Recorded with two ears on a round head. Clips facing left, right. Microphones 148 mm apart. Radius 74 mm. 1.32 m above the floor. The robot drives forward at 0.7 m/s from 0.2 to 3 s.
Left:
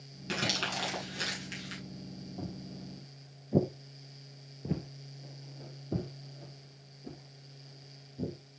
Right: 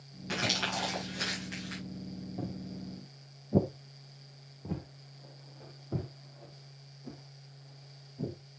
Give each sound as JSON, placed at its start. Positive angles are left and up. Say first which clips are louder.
{"t": 0.3, "sound": "crumpling", "louder": "right 1 dB", "side_deg": 40, "distance_m": 7.5}
{"t": 2.4, "sound": "footsteps", "louder": "right 2 dB", "side_deg": -15, "distance_m": 2.5}